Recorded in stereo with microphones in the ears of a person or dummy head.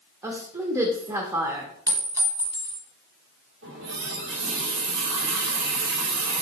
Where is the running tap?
80° right, 1.4 m.